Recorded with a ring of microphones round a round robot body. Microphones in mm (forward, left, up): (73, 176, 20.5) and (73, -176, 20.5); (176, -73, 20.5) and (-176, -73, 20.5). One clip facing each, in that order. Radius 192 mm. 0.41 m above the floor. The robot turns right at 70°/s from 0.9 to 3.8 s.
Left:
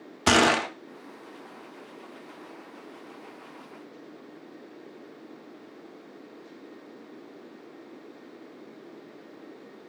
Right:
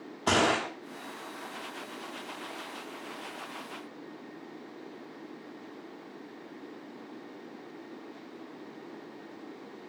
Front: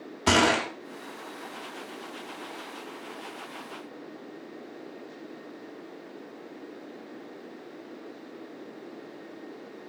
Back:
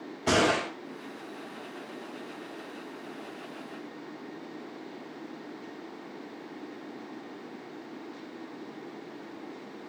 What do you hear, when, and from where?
0.3 s a gunshot: 60° left, 0.5 m